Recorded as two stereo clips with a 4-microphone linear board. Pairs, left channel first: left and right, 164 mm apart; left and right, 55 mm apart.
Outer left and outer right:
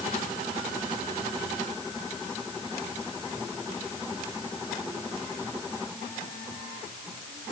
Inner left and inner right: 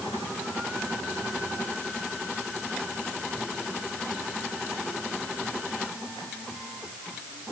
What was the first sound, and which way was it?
Only background noise.